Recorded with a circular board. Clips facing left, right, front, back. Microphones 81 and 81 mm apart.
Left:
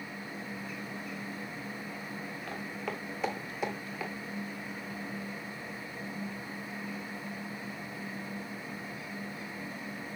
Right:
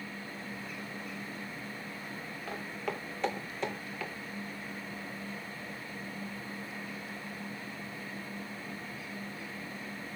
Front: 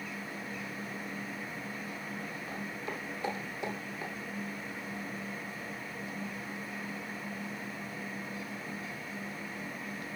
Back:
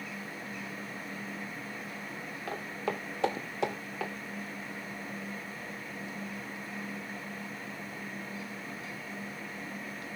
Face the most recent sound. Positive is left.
turn(degrees=165)